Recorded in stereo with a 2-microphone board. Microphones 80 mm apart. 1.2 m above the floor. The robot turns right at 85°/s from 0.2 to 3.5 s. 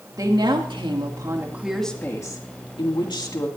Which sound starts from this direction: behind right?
A woman speaking, at 0.2 s.